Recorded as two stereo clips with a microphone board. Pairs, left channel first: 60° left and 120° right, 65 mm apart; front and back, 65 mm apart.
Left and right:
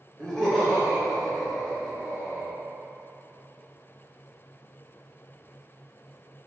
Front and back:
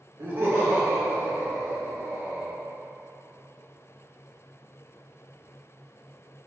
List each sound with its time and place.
0.2 s laughter: 140° left, 1.1 m